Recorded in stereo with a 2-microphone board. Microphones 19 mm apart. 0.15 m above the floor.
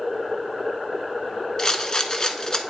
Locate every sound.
1.6 s a rattle: 35° left (ahead or behind), 0.6 m